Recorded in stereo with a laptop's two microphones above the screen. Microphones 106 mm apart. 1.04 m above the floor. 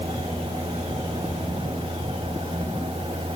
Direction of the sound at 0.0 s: 75° right (ahead or behind).